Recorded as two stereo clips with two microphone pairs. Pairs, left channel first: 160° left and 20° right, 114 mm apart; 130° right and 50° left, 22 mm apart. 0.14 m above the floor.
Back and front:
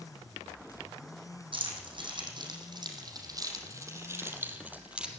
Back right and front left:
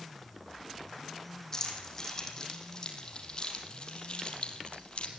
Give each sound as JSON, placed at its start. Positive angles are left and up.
{"t": 1.5, "sound": "keys jangling", "azimuth_deg": -60, "distance_m": 5.5}